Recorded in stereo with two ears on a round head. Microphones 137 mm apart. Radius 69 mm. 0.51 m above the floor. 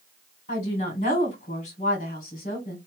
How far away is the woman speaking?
About 1.9 m.